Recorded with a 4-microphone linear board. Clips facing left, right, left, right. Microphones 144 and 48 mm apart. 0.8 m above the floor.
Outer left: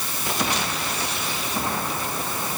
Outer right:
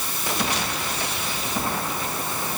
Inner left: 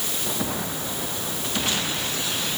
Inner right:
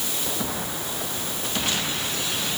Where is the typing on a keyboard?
I don't hear typing on a keyboard.